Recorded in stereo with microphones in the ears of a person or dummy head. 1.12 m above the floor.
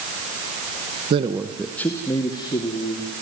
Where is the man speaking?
35° right (ahead or behind), 0.9 m; by 3.1 s 30° left (ahead or behind), 3 m.